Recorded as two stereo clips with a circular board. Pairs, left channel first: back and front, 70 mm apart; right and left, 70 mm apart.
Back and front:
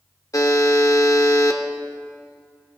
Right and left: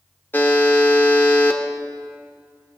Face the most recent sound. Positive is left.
turn(degrees=-150)